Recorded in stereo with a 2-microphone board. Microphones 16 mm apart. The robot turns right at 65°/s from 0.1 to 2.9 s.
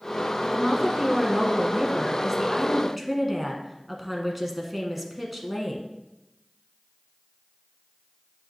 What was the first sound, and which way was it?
A woman speaking, 175° right.